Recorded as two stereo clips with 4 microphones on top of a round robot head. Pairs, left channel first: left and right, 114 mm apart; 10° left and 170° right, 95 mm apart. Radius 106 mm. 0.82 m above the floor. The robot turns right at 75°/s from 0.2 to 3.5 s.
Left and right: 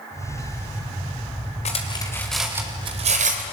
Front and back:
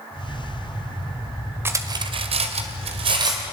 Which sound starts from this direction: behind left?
Cutlery clinking, at 1.6 s.